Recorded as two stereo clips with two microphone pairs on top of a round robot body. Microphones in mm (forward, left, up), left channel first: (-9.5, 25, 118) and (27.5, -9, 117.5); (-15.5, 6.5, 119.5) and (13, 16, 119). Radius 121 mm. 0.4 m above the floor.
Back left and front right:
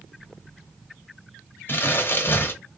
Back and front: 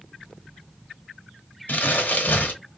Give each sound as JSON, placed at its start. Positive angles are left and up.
{"t": 1.7, "sound": "crumpling", "azimuth_deg": 180, "distance_m": 0.8}